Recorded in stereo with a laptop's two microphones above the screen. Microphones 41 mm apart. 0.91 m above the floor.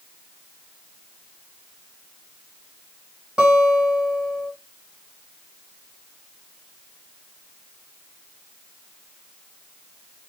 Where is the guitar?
25° right (ahead or behind), 1.8 m.